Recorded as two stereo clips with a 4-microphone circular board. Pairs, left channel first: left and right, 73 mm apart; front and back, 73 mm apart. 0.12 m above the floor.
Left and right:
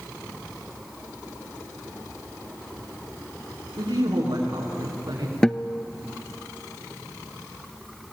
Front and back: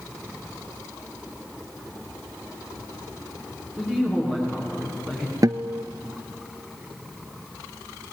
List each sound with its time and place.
3.8 s a man speaking: 70° right, 8 m
5.4 s a guitar: 170° left, 0.7 m